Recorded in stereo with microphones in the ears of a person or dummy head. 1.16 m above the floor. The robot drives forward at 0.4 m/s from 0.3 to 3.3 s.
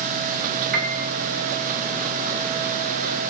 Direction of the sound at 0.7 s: 60° right (ahead or behind).